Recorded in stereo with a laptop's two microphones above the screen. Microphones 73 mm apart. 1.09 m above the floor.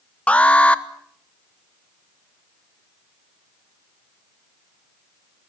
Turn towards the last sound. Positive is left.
turn(degrees=15)  # may be behind; listen again after turning